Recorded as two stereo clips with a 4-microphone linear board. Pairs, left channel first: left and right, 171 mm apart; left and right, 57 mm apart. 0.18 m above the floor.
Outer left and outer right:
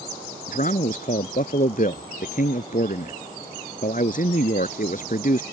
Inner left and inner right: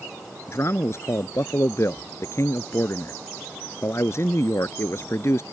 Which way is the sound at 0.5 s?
55° left (ahead or behind).